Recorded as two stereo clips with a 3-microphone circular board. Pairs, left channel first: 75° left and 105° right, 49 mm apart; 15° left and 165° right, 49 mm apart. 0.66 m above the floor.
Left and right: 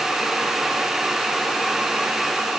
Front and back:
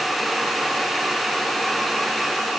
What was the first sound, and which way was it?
Only background noise.